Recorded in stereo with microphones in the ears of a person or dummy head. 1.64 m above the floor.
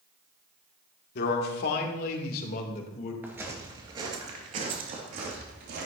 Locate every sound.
1.1 s a man speaking: 60° left (ahead or behind), 1.7 m; by 3.1 s 45° left (ahead or behind), 2.5 m
3.2 s footsteps: 10° right (ahead or behind), 1.9 m; by 5.9 s 60° right (ahead or behind), 3 m